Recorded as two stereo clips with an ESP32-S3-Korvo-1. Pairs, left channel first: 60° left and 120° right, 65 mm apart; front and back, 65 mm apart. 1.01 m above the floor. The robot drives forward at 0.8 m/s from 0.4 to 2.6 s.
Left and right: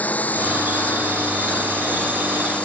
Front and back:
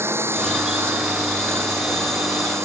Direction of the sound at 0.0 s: 125° left.